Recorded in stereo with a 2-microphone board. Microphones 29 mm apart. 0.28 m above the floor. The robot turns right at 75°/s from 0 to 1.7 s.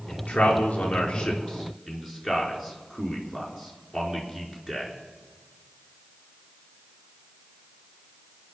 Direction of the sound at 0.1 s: 65° left (ahead or behind).